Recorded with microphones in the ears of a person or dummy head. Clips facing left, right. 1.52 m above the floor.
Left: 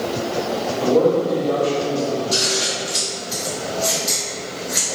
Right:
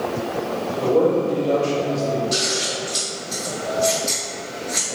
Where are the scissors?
10° right (ahead or behind), 1.5 m.